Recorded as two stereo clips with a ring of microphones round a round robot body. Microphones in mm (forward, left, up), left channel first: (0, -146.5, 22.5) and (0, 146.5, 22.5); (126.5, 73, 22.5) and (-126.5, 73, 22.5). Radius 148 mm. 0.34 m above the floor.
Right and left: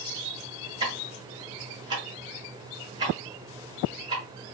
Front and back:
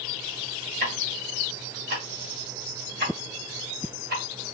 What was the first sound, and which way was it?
Ticking, 160° left.